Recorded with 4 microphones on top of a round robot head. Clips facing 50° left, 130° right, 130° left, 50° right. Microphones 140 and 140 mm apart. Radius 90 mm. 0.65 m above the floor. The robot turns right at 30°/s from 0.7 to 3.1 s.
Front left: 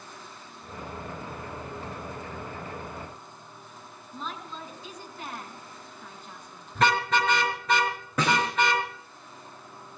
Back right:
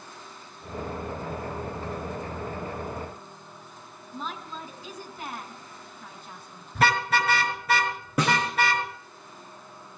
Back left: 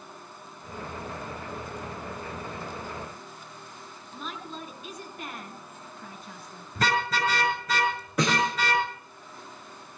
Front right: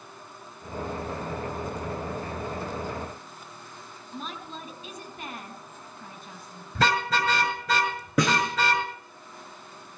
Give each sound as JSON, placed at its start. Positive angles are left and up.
{"t": 4.1, "sound": "a woman speaking", "azimuth_deg": -50, "distance_m": 5.5}
{"t": 6.8, "sound": "a car horn", "azimuth_deg": -50, "distance_m": 6.0}
{"t": 8.2, "sound": "a snare drum", "azimuth_deg": -50, "distance_m": 9.5}